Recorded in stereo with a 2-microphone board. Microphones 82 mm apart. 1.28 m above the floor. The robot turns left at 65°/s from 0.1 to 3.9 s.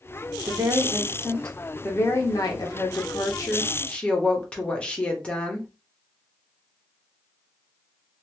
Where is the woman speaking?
120° right, 0.9 m; by 5.7 s 15° left, 0.9 m.